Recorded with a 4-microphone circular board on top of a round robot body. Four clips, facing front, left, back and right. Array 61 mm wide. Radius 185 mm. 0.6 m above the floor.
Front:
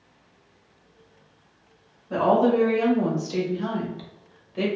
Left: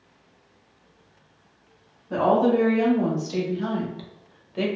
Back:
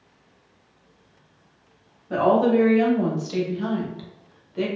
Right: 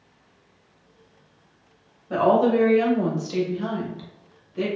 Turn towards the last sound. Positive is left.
turn(degrees=75)